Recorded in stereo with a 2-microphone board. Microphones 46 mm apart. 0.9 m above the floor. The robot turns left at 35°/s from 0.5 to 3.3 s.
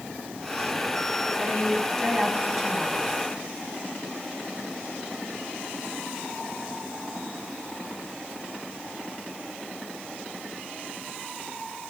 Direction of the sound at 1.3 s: 40° left.